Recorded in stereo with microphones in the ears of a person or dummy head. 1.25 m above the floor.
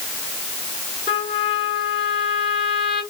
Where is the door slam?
No door slam in this recording.